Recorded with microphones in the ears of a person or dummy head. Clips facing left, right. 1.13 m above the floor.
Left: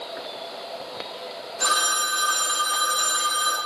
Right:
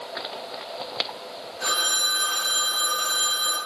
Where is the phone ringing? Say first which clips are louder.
Left 4 dB; 75° left (ahead or behind), 5.5 m.